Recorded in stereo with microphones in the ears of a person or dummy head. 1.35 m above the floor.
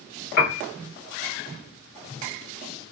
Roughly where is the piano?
Left.